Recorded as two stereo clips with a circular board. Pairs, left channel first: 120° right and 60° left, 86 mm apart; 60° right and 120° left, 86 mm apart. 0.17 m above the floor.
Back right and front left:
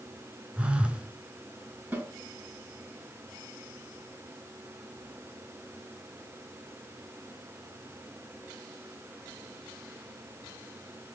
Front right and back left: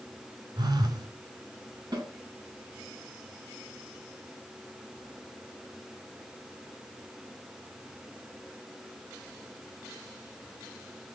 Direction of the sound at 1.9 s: 120° left.